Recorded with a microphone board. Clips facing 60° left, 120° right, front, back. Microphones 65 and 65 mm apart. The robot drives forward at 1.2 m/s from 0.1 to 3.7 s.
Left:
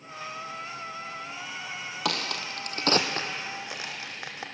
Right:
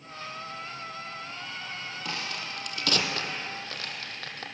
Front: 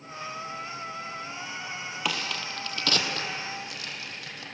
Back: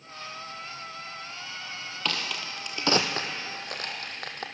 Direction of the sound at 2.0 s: 80° left.